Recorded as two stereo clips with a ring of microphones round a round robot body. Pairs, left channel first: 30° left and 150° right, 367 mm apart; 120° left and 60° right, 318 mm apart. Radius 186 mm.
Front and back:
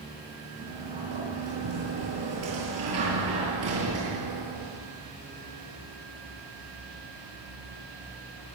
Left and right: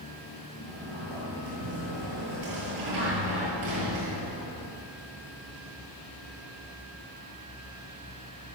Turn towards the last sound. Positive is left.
turn(degrees=-100)